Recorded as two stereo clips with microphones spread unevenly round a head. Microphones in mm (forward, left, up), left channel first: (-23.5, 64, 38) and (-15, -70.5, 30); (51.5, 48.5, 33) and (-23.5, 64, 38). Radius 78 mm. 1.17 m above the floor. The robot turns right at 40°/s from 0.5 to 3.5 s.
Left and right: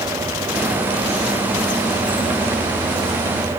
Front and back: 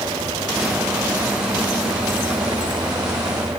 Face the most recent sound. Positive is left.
No sound to turn to.